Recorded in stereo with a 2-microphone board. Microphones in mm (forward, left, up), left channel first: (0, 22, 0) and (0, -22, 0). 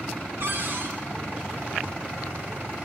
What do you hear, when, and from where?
0.4 s a cupboard door: 55° right (ahead or behind), 2.5 m